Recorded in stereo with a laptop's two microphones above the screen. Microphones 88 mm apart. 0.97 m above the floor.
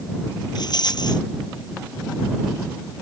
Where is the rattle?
55° left (ahead or behind).